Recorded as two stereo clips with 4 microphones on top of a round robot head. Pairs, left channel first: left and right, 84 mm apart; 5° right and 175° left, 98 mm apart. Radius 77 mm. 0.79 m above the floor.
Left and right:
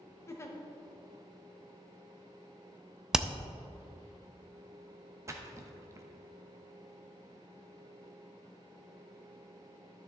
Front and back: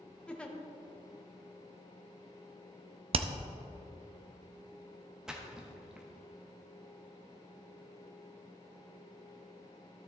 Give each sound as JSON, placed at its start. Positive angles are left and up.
{"t": 0.3, "sound": "a giggle", "azimuth_deg": 65, "distance_m": 1.0}
{"t": 3.1, "sound": "hammering", "azimuth_deg": -175, "distance_m": 0.5}
{"t": 5.3, "sound": "a splash", "azimuth_deg": -105, "distance_m": 1.0}